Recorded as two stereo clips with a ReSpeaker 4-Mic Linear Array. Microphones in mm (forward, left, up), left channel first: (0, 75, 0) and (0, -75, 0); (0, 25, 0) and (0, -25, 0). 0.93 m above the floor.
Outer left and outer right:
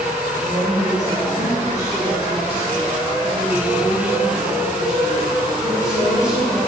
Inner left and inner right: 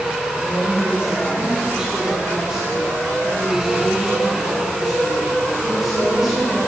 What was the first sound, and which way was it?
A woman speaking, 35° right (ahead or behind).